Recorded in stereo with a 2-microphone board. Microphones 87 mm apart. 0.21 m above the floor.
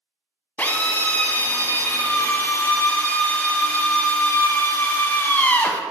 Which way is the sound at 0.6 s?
25° left (ahead or behind).